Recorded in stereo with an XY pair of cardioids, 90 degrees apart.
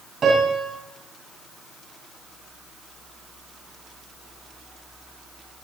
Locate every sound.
0.2 s a piano: 55° right, 5.5 m